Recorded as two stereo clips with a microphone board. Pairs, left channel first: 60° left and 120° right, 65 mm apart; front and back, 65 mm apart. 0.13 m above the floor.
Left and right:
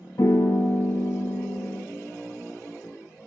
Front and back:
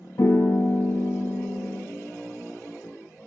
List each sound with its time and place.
0.2 s a piano: 30° left, 0.6 m